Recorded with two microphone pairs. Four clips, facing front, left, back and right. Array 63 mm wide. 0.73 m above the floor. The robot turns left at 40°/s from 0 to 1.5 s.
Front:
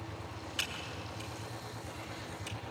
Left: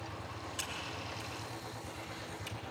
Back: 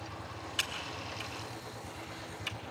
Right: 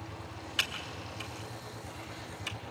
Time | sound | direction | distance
0.6 | typing on a keyboard | 105° right | 2 m